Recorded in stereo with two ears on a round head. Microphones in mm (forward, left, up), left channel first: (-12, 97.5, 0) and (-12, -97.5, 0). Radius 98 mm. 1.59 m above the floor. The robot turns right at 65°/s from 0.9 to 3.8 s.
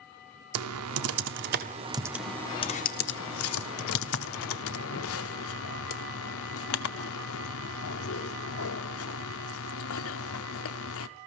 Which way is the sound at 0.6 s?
75° right (ahead or behind).